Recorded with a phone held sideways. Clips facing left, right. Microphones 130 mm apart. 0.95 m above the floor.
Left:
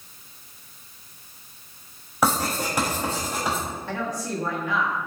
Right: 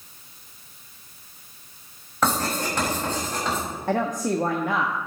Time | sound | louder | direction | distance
2.2 | writing | left 1 dB | 10° left (ahead or behind) | 5.5 m
3.9 | a woman speaking | right 8 dB | 55° right (ahead or behind) | 1.1 m